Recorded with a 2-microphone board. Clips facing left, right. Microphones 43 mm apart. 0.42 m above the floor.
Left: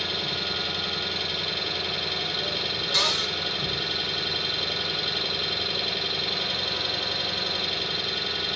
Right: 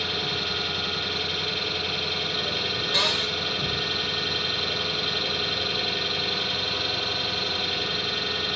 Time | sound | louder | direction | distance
0.0 | an engine running | right 1 dB | 20° right (ahead or behind) | 1.0 m
2.9 | a cupboard door | even | 25° right (ahead or behind) | 0.9 m